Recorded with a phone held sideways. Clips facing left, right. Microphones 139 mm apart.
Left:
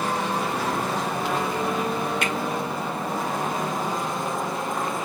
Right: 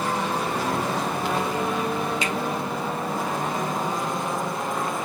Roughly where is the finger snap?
Left.